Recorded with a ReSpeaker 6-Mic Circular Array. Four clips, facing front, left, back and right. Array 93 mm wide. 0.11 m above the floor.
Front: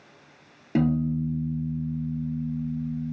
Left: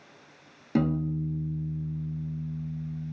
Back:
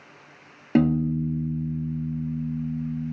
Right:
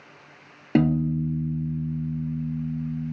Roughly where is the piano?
Behind right.